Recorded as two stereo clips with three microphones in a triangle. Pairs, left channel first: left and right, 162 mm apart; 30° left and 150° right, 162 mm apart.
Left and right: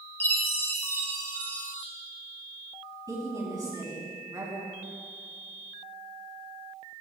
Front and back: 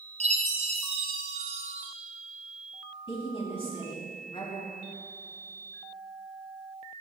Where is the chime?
165° left, 1.8 m.